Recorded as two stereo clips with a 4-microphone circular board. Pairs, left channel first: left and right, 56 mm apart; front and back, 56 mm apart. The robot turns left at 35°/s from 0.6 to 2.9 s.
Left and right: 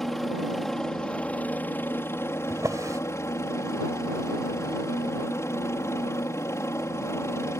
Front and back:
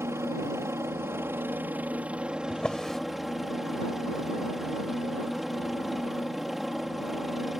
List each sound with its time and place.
0.0 s a helicopter: 175° left; by 7.6 s 95° left
2.5 s a drawer: 65° right; by 3.0 s 80° right